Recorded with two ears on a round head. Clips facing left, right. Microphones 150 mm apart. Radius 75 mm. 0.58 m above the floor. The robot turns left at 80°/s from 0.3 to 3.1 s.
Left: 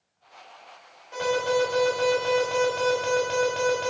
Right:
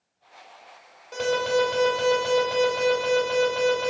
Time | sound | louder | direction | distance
1.1 | an alarm | right 1 dB | 45° right | 4.5 m